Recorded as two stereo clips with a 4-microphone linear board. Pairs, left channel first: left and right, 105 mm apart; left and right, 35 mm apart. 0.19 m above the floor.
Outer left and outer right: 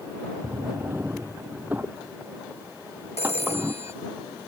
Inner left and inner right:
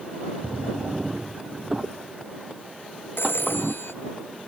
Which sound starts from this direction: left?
A phone ringing, at 3.2 s.